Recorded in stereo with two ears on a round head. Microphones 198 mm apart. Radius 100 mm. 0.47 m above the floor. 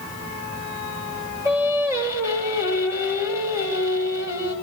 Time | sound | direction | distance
1.4 | singing | 10° right (ahead or behind) | 2.5 m